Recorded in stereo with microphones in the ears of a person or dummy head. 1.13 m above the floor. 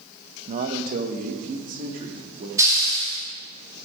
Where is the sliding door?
No sliding door in this recording.